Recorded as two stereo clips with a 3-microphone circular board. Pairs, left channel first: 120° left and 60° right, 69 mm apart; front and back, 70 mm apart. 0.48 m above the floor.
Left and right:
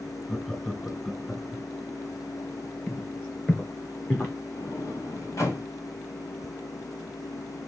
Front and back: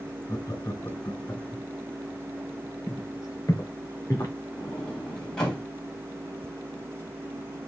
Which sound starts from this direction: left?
A sliding door, at 4.6 s.